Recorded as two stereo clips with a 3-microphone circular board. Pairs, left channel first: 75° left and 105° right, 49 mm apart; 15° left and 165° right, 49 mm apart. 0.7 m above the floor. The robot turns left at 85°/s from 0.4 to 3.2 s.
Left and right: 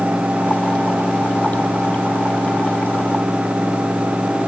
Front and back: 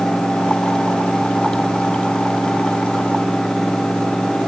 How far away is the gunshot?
No gunshot in this recording.